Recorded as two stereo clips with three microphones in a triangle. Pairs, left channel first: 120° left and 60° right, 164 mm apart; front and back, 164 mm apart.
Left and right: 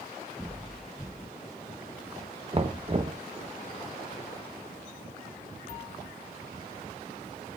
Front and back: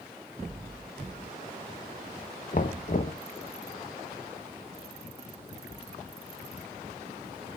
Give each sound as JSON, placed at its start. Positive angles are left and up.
{"t": 2.5, "sound": "knocking", "azimuth_deg": -15, "distance_m": 0.8}